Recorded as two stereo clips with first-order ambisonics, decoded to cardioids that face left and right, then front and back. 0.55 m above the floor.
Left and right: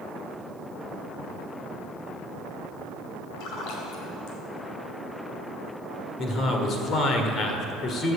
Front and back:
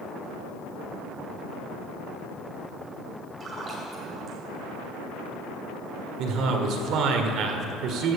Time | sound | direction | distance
3.4 | a splash | 110° left | 2.5 m
6.2 | a man speaking | 145° left | 1.6 m